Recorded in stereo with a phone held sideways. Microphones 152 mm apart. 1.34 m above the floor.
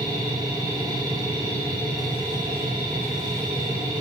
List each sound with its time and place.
0.0 s a machine running: 25° right (ahead or behind), 1.3 m